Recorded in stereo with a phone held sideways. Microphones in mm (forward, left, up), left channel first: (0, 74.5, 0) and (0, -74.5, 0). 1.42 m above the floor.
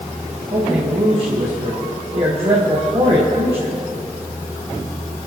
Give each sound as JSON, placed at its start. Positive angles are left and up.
{"t": 0.5, "sound": "a man speaking", "side_deg": -40, "distance_m": 1.7}